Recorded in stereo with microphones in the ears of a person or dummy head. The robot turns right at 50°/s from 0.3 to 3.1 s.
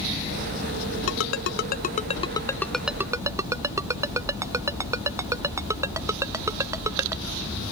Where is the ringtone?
90° left; by 7.2 s 10° right (ahead or behind).